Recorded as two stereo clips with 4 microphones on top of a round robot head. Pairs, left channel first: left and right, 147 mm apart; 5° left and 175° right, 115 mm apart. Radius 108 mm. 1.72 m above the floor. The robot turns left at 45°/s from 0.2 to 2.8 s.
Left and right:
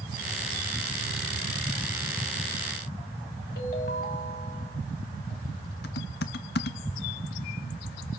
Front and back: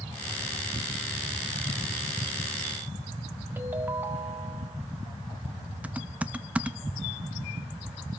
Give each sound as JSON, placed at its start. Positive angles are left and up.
{"t": 3.6, "sound": "a ringtone", "azimuth_deg": 115, "distance_m": 1.6}
{"t": 5.8, "sound": "typing on a keyboard", "azimuth_deg": 105, "distance_m": 0.7}